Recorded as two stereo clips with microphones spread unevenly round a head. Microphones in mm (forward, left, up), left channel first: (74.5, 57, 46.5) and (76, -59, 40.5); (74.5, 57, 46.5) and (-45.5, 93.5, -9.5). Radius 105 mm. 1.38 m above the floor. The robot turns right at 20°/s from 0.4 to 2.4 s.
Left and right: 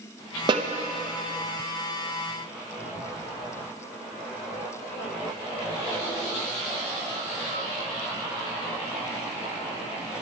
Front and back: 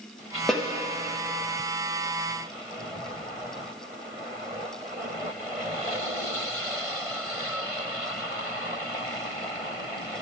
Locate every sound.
0.5 s a snare drum: 65° right, 0.7 m; by 0.7 s 60° right, 0.7 m